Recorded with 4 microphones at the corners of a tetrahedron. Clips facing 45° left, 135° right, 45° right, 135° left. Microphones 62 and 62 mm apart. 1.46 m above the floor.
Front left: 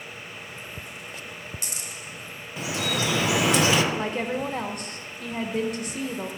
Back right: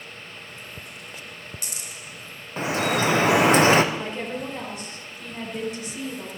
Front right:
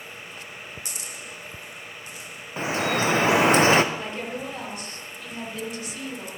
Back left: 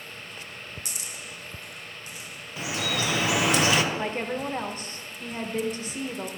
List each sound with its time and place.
2.6 s dripping: 95° right, 0.6 m
3.9 s a woman speaking: 80° left, 1.4 m